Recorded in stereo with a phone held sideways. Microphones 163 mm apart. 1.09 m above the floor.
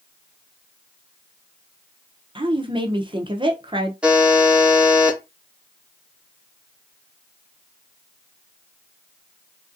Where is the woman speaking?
30° right (ahead or behind), 0.6 m.